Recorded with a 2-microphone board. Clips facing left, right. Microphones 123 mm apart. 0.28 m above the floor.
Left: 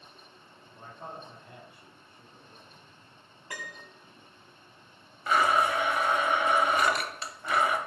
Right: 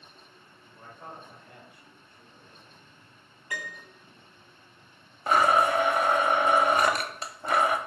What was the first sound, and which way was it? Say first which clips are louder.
A man speaking: left 2 dB; 25° left (ahead or behind).